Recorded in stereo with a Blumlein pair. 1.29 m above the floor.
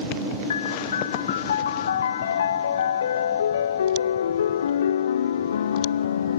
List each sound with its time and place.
0.5 s a piano: 65° left